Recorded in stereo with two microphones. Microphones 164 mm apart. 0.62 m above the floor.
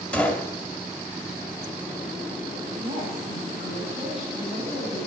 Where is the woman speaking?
30° right (ahead or behind), 5 m.